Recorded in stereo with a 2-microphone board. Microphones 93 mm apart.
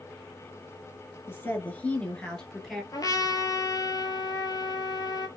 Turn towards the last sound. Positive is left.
turn(degrees=40)  # may be behind; listen again after turning